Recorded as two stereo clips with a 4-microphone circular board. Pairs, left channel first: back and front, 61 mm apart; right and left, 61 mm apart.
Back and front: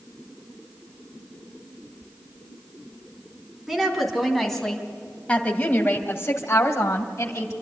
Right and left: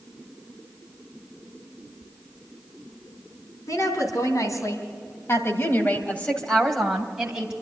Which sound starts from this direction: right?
A woman speaking, at 3.7 s.